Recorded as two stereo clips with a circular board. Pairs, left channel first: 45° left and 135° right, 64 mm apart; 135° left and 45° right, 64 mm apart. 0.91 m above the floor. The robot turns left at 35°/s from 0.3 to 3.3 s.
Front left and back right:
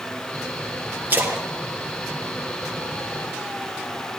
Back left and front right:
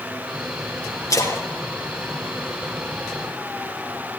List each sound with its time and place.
1.1 s a splash: 165° left, 5 m; by 3.3 s 90° left, 5 m